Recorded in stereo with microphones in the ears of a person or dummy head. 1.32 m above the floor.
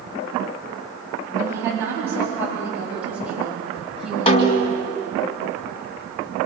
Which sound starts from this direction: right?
A woman speaking, at 1.4 s.